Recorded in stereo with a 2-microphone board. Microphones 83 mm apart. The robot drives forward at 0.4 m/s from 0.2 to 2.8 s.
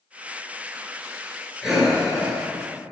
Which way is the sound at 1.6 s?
5° right (ahead or behind).